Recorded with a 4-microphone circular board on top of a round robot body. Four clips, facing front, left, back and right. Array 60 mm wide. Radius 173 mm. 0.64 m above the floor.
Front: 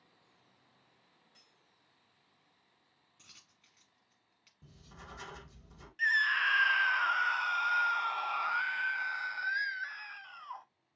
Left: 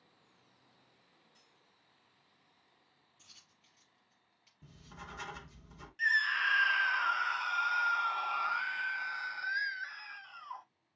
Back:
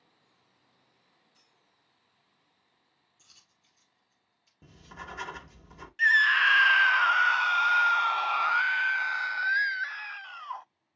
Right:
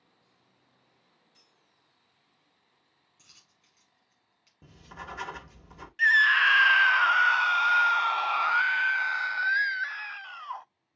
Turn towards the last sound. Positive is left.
turn(degrees=-125)